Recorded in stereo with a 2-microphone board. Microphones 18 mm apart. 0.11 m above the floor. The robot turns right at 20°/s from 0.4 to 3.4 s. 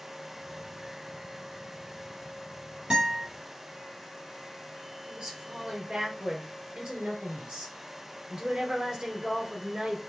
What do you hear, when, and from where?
2.9 s a guitar: 45° right (ahead or behind), 3.5 m; by 3.3 s 35° right (ahead or behind), 3.5 m
5.1 s a woman speaking: 50° right (ahead or behind), 2 m